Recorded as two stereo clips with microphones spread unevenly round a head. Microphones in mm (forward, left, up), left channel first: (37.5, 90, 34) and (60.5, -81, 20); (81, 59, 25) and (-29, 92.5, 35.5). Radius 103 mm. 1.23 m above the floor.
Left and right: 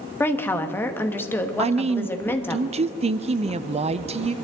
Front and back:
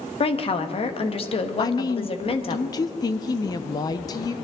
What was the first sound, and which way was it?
A woman speaking, 20° left.